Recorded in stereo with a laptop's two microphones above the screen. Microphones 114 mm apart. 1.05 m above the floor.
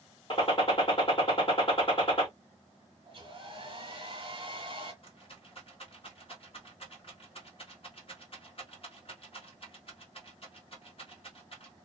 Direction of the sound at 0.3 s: 50° left (ahead or behind).